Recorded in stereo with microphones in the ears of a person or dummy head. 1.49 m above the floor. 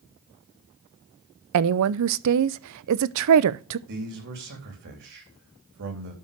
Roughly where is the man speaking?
Right.